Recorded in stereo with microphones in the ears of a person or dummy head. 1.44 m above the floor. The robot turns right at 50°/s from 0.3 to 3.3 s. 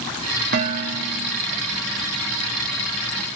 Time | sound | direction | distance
0.5 | dishes clattering | 105° right | 0.8 m